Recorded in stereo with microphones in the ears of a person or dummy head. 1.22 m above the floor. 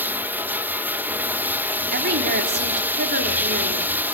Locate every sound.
0.0 s running water: 15° right (ahead or behind), 0.9 m
1.9 s a woman speaking: 55° right (ahead or behind), 3.5 m